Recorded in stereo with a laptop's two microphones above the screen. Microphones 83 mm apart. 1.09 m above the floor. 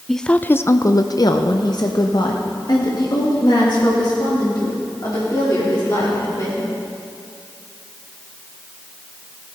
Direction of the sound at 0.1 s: Centre (ahead or behind).